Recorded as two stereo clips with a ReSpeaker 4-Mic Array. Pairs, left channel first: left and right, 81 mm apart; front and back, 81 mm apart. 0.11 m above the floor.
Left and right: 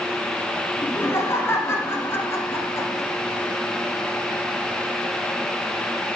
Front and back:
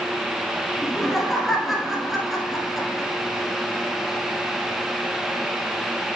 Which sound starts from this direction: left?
Laughter, at 0.8 s.